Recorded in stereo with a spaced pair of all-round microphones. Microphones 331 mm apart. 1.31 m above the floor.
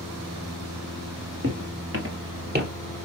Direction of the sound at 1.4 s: 45° right (ahead or behind).